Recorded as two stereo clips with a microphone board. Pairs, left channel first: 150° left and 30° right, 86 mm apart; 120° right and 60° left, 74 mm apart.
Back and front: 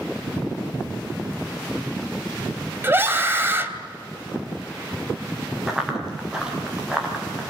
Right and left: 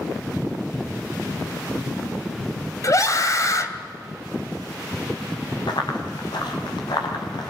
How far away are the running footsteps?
About 5.5 m.